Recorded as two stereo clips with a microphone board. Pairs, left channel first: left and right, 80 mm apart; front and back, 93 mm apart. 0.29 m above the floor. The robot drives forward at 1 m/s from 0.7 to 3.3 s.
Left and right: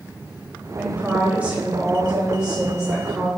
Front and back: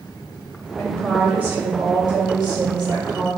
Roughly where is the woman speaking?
Ahead right.